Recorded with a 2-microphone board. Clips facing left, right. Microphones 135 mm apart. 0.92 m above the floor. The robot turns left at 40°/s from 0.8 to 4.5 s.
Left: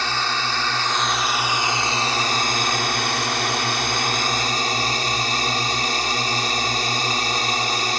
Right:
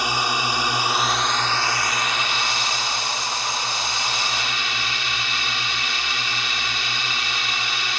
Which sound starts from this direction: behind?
A drone, at 0.0 s.